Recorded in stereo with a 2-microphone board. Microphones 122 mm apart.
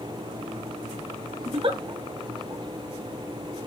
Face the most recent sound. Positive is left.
turn(degrees=-40)  # may be behind; listen again after turning